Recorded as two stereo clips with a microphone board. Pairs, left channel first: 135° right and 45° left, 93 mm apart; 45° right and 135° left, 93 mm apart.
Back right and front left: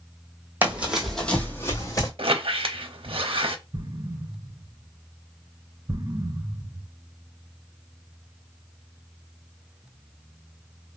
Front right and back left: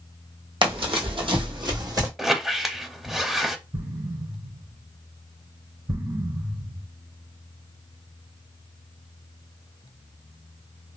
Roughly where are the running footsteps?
Behind left.